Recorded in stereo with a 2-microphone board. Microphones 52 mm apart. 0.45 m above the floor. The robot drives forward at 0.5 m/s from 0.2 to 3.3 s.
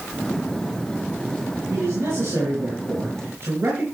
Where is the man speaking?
55° right (ahead or behind), 5.5 m; by 3.9 s 50° right (ahead or behind), 6 m.